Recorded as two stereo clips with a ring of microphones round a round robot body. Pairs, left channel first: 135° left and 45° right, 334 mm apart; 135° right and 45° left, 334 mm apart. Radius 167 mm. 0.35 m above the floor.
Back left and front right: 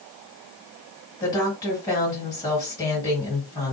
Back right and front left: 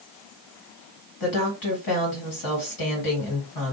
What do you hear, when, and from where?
1.2 s a woman speaking: 145° right, 2 m